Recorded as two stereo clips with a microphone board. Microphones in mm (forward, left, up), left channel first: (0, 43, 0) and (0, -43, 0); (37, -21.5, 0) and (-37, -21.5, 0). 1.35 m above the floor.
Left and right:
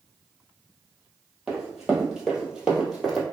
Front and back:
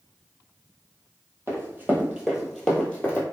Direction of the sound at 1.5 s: 175° right.